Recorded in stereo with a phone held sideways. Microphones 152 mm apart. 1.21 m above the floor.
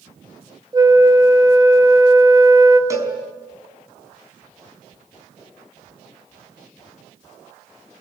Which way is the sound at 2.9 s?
20° right (ahead or behind).